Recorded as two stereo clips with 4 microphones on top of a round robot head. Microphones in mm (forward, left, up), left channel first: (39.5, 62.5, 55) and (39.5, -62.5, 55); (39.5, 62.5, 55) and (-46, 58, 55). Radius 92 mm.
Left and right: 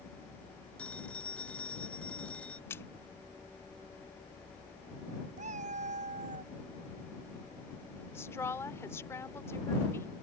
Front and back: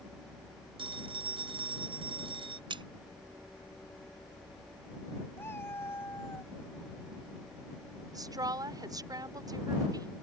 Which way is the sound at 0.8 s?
170° left.